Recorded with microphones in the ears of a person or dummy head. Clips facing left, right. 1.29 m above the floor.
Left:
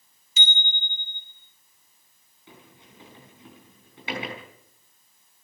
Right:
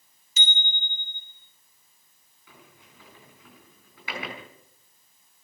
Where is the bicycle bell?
35° right (ahead or behind), 4 m.